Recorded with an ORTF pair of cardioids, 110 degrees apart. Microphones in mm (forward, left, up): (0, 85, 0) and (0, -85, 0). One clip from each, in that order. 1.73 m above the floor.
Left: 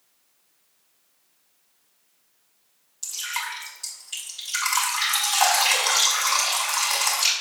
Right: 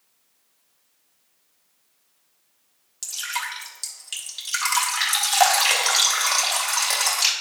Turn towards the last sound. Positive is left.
turn(degrees=-65)